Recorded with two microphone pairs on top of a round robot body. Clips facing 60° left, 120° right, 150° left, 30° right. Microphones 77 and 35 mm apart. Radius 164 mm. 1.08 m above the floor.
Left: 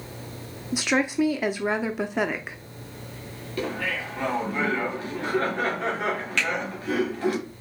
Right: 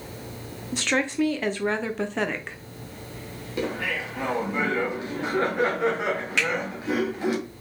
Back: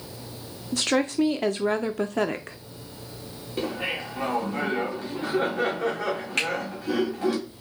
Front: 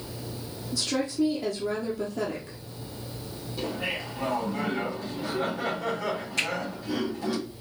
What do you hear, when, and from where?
0.7 s a woman speaking: 145° left, 0.7 m
3.6 s laughter: 165° left, 2.5 m
6.4 s a finger snap: 165° left, 3 m